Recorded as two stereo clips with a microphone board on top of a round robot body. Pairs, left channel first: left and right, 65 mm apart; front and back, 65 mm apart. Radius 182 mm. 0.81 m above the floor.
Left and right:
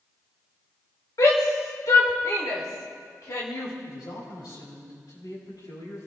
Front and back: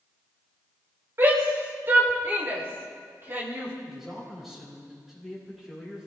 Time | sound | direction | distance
1.2 | a shout | 125° left | 3.5 m
3.9 | a man speaking | 95° left | 7 m